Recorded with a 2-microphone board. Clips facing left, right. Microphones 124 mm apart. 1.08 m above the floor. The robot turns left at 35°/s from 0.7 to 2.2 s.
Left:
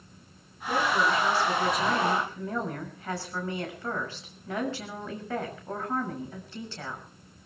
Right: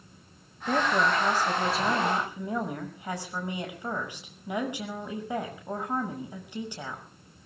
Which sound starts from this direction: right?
A woman speaking, at 0.7 s.